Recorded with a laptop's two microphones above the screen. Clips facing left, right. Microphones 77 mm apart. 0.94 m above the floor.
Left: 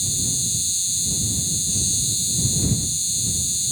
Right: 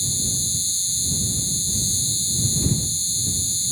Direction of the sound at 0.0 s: 40° right (ahead or behind).